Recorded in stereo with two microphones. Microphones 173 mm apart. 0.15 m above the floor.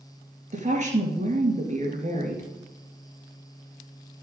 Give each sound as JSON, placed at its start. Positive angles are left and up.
{"t": 0.5, "sound": "a woman speaking", "side_deg": -45, "distance_m": 2.5}